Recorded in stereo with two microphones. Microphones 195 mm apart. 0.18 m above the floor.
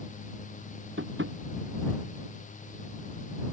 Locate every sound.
1.0 s tapping: 85° right